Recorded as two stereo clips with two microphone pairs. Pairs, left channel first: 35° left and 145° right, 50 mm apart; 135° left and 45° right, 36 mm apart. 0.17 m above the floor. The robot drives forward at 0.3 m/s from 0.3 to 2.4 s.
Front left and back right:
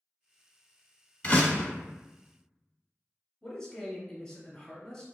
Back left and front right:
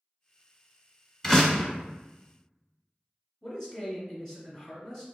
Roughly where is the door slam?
Left.